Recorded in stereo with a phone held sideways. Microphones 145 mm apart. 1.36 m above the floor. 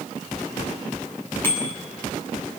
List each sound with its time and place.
1.4 s a bicycle bell: 15° left (ahead or behind), 8 m